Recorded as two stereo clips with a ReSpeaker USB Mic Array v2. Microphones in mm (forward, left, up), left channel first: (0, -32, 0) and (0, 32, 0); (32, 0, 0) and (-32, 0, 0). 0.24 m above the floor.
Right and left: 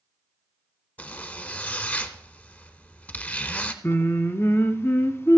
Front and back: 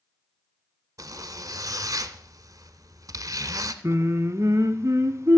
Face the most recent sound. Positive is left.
turn(degrees=-140)